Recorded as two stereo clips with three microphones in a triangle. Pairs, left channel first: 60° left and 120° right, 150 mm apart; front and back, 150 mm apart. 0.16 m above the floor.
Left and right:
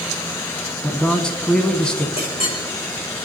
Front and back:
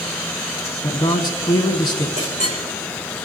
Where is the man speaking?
20° right, 1.1 m.